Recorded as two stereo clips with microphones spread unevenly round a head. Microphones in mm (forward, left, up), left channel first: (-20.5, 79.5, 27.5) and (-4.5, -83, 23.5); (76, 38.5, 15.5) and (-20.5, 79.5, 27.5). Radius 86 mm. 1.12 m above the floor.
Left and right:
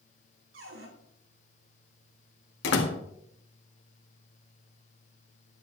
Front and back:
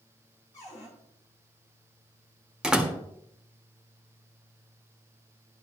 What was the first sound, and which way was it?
A cupboard door, 95° right.